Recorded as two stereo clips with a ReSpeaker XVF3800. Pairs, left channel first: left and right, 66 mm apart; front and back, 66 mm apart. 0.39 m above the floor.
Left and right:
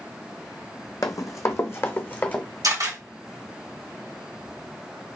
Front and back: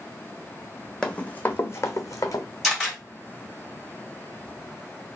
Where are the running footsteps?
75° left, 0.8 m; by 2.5 s 20° left, 1.0 m.